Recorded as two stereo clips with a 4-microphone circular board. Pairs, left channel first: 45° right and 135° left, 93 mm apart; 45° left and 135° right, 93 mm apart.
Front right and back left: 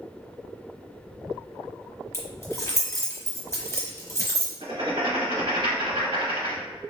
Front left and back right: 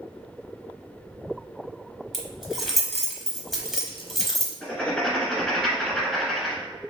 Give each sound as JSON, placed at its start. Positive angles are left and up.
{"t": 2.1, "sound": "keys jangling", "azimuth_deg": -55, "distance_m": 0.9}
{"t": 4.6, "sound": "writing", "azimuth_deg": 130, "distance_m": 1.2}